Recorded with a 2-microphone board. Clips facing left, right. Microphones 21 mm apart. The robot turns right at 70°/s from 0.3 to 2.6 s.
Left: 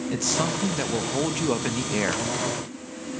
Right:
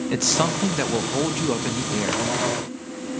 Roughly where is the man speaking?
Right.